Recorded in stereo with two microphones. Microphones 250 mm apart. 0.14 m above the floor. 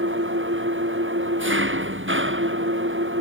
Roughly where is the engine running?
Right.